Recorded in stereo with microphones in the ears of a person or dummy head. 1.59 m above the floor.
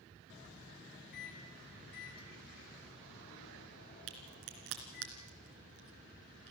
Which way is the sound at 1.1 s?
60° left (ahead or behind).